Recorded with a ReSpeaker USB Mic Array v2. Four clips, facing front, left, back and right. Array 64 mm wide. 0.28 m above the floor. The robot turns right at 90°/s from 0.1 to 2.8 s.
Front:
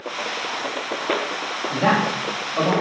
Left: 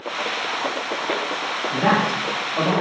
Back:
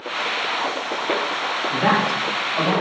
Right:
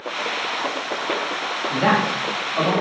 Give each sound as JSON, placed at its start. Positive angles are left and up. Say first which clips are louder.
{"t": 1.7, "sound": "a man speaking", "louder": "even, even", "azimuth_deg": -85, "distance_m": 0.9}